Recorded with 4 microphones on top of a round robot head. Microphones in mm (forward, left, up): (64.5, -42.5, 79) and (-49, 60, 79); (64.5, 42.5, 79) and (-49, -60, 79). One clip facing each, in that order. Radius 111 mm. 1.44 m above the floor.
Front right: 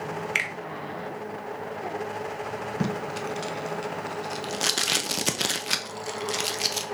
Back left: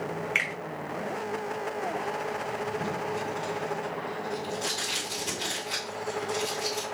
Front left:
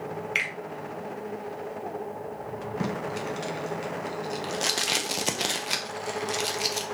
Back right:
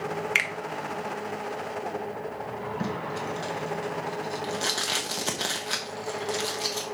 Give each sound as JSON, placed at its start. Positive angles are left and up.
{"t": 0.3, "sound": "a finger snap", "azimuth_deg": -100, "distance_m": 0.7}
{"t": 2.8, "sound": "tape being pulled", "azimuth_deg": -30, "distance_m": 0.5}